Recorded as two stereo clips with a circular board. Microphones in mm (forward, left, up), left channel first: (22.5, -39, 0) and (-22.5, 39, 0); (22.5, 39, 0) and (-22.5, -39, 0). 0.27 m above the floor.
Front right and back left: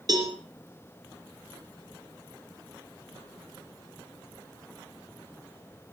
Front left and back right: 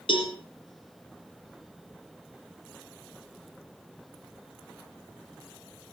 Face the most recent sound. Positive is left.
turn(degrees=80)